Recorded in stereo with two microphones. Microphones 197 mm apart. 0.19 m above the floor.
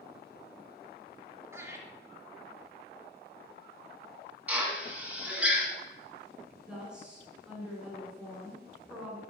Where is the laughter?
15° right (ahead or behind), 1.7 m.